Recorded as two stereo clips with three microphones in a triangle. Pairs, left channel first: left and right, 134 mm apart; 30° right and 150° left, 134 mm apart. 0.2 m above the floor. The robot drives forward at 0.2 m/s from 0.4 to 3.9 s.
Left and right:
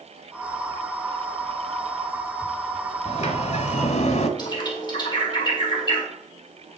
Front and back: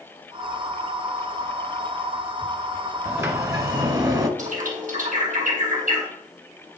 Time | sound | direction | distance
3.0 | a sliding door | 80° left | 0.8 m
4.4 | a bird | 145° left | 1.9 m